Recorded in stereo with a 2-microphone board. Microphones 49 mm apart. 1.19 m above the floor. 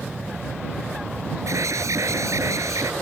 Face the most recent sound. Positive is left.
turn(degrees=-85)